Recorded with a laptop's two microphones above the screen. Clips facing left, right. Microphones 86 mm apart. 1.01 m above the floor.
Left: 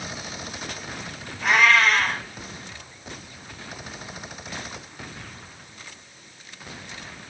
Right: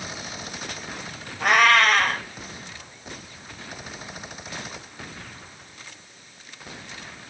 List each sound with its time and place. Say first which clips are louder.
1.4 s a cat meowing: right 1 dB; 55° right (ahead or behind), 0.7 m